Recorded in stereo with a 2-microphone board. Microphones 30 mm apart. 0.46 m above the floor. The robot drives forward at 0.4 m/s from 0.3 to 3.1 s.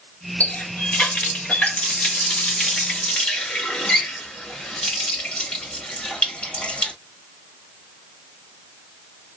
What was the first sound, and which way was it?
A running tap, 65° left (ahead or behind).